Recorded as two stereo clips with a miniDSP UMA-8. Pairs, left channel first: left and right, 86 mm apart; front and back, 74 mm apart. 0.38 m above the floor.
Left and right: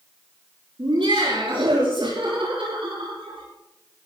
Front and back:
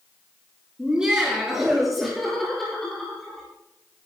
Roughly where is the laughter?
Right.